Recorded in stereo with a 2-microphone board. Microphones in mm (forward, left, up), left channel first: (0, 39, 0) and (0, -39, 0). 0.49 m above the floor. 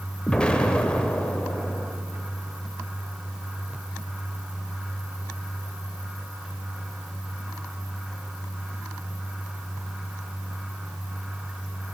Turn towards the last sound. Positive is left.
turn(degrees=10)  # may be behind; listen again after turning